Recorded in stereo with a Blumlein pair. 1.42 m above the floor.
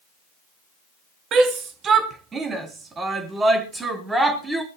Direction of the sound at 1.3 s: 30° right.